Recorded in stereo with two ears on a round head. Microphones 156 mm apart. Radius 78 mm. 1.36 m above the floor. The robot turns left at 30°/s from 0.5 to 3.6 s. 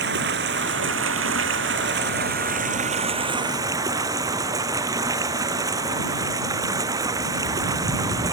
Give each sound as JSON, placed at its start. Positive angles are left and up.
{"t": 0.0, "sound": "running water", "azimuth_deg": -65}